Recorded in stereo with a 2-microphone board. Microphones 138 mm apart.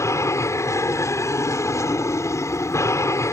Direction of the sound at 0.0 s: 20° left (ahead or behind).